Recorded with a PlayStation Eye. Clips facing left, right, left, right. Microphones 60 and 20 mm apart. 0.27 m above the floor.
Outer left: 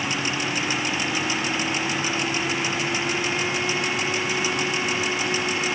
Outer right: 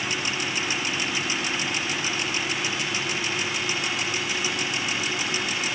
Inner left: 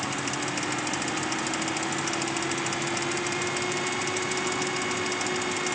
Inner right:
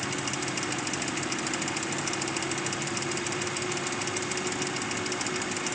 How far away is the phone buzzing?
I don't hear a phone buzzing.